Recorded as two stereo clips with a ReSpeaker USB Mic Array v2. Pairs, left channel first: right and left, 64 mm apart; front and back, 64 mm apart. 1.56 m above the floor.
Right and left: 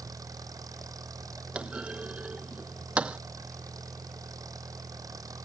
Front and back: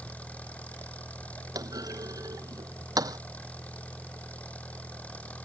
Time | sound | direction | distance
0.0 | an engine running | 70° left | ?
1.6 | a clunk | 165° left | ?